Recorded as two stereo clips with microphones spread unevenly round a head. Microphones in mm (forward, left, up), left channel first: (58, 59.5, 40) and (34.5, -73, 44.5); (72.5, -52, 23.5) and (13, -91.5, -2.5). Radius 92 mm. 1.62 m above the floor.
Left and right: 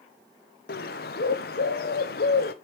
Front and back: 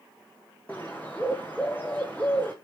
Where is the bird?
110° left, 0.7 m.